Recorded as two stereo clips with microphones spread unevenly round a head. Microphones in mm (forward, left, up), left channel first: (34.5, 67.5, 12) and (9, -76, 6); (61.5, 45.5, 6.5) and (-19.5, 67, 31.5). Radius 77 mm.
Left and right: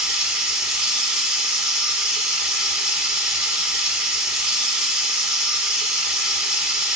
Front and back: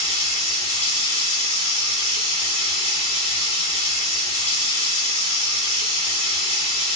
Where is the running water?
15° right, 1.1 m.